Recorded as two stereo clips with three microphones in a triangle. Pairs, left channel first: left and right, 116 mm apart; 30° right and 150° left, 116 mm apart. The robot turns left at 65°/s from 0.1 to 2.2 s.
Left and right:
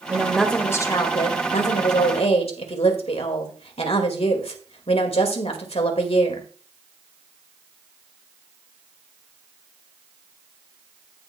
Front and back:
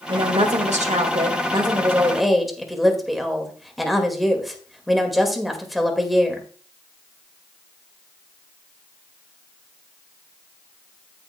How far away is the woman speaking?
About 1.9 m.